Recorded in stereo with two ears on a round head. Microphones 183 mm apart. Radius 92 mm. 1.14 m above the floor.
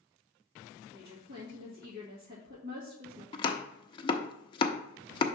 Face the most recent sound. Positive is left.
turn(degrees=25)  # may be behind; listen again after turning